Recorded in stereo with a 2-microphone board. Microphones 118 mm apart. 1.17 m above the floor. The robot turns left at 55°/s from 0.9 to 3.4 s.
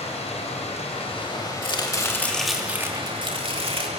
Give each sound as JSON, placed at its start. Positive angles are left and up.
{"t": 0.0, "sound": "running water", "azimuth_deg": 65, "distance_m": 4.5}
{"t": 1.6, "sound": "chopping", "azimuth_deg": 45, "distance_m": 2.5}